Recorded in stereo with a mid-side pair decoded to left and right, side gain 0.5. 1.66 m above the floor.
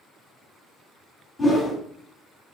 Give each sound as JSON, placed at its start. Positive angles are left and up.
{"t": 1.4, "sound": "a whoosh", "azimuth_deg": 15, "distance_m": 1.7}